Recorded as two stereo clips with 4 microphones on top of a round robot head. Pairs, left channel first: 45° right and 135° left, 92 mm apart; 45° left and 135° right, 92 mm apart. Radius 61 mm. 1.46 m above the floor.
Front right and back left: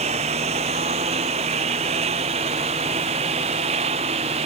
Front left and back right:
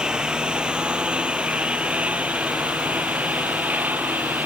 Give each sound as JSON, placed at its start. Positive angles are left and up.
{"t": 0.0, "sound": "a lawn mower", "azimuth_deg": 145}